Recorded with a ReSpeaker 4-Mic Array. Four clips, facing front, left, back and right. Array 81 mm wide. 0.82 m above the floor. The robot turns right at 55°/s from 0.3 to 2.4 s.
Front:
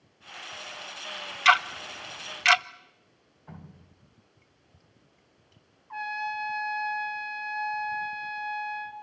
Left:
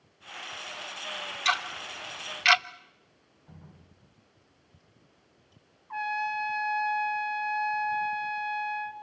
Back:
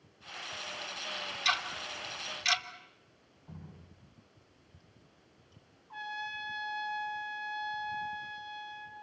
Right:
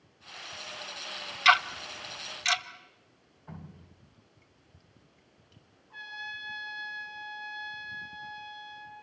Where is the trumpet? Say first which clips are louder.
Left 12 dB, front 8 dB; 55° left, 2 m.